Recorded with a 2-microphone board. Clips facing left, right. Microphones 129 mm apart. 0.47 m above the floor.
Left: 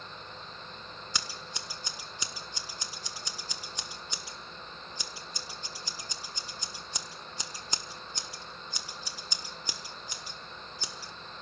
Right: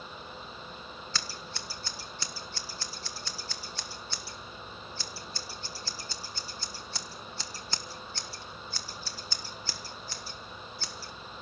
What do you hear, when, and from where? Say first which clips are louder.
1.1 s scissors: even; 15° left (ahead or behind), 1.6 m